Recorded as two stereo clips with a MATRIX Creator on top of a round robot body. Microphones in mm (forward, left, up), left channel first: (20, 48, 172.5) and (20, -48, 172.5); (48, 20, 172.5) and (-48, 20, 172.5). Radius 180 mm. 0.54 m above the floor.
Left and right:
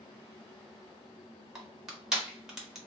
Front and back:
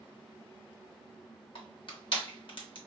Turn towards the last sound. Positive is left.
turn(degrees=-5)